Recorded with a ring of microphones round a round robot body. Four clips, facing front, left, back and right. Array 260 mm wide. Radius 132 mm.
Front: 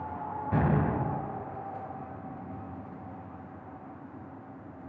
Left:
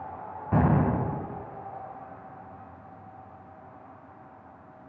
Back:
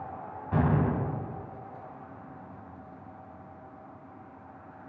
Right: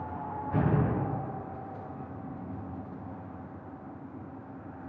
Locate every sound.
0.5 s an explosion: 75° left, 2.5 m